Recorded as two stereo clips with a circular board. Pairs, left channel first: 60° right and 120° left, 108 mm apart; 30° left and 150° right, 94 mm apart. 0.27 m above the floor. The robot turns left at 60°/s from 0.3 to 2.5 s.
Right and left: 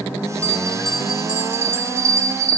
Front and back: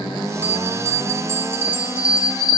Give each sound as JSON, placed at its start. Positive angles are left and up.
{"t": 0.4, "sound": "a bell", "azimuth_deg": -115, "distance_m": 0.8}